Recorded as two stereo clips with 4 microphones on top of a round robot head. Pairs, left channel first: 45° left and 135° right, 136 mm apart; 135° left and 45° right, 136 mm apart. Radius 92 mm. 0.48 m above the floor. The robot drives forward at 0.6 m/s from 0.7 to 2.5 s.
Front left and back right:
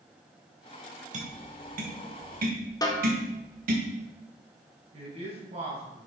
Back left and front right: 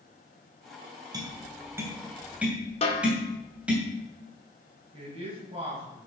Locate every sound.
1.1 s tapping: 105° right, 2.0 m; by 3.8 s 125° right, 2.5 m
2.8 s a snare drum: 105° left, 2.0 m
4.9 s a man speaking: 95° right, 3.5 m